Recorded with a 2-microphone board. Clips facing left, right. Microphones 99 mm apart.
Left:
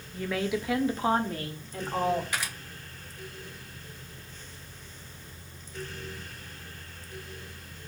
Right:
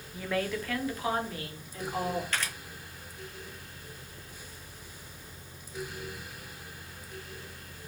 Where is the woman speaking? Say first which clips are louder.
Left 2 dB; 5° right (ahead or behind), 0.7 m; by 2.2 s 60° left (ahead or behind), 1.2 m.